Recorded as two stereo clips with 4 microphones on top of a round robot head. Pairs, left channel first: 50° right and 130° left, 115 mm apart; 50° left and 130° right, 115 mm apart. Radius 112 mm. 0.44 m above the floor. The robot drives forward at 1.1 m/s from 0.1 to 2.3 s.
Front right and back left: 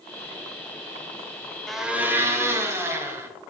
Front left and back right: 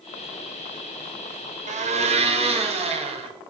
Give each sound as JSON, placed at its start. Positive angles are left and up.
{"t": 1.7, "sound": "a blender", "azimuth_deg": -135, "distance_m": 0.5}